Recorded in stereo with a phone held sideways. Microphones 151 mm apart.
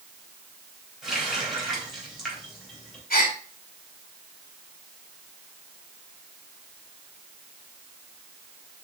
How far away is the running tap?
About 3.5 m.